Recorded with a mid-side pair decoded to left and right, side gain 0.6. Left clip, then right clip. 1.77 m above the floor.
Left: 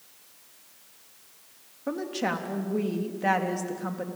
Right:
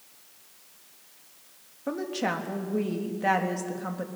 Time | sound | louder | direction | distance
1.9 | a woman speaking | even | straight ahead | 3.5 m